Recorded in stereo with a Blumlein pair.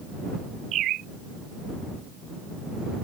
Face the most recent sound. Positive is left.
turn(degrees=-30)